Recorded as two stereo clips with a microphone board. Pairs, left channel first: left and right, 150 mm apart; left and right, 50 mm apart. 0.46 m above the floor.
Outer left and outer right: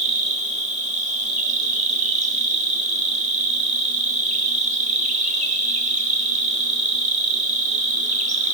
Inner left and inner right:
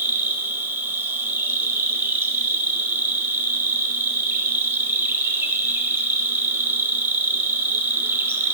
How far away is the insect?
About 0.8 m.